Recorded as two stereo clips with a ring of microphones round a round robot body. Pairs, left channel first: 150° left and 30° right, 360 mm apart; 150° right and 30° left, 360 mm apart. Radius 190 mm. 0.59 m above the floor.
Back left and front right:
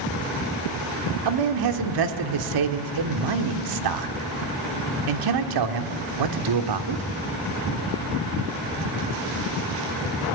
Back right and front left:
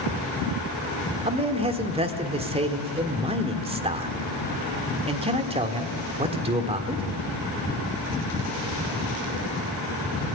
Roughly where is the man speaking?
Ahead right.